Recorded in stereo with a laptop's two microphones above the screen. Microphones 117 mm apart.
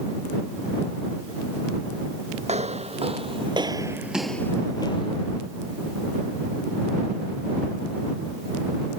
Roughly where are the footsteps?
Right.